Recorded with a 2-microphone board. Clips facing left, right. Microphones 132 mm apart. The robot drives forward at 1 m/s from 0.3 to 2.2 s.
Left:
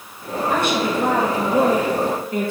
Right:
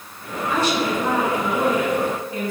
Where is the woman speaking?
50° left (ahead or behind), 1.9 m; by 2.5 s 65° left (ahead or behind), 1.6 m.